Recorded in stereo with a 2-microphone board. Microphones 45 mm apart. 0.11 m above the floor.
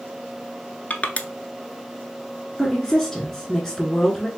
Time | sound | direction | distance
0.9 | crushing | 35° left (ahead or behind) | 0.5 m
2.6 | a woman speaking | 10° left (ahead or behind) | 1.1 m